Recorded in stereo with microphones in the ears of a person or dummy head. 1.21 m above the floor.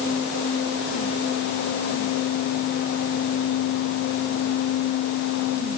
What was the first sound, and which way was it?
Only background noise.